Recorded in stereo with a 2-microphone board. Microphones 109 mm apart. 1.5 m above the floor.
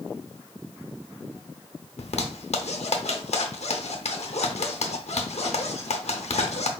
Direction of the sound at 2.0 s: 80° left.